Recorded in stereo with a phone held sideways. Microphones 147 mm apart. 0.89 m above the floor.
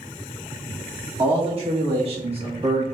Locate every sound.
1.2 s a man speaking: 40° right (ahead or behind), 1.8 m